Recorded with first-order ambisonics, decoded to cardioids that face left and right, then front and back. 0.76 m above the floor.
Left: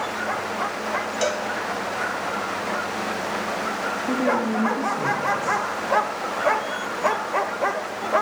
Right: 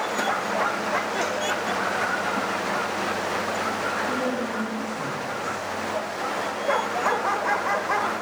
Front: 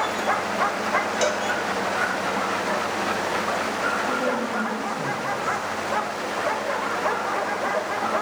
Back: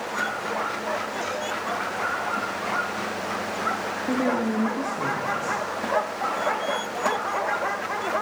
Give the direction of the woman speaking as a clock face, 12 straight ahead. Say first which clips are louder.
Left 4 dB, front 1 dB; 7 o'clock.